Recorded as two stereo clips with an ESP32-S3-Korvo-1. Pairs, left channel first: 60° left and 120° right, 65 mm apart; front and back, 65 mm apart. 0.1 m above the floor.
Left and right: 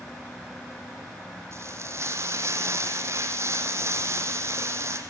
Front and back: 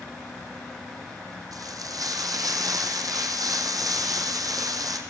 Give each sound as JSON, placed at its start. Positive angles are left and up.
{"t": 1.5, "sound": "frying", "azimuth_deg": -165, "distance_m": 3.5}